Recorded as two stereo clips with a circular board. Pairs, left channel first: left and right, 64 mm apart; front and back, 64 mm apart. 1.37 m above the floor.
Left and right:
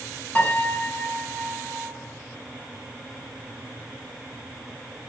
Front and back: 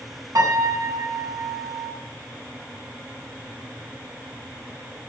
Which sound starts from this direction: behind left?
A piano, at 0.3 s.